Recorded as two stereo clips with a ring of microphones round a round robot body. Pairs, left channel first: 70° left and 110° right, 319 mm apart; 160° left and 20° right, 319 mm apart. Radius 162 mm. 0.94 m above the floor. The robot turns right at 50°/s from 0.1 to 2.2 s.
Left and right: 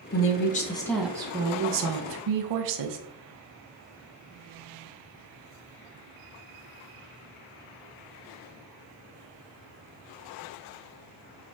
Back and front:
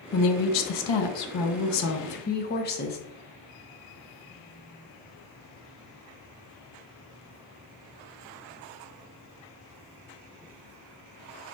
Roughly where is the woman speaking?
Behind left.